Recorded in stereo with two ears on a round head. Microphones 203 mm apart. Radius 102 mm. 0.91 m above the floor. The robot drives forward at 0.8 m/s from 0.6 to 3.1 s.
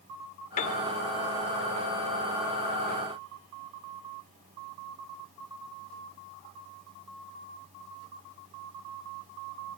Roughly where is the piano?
Left.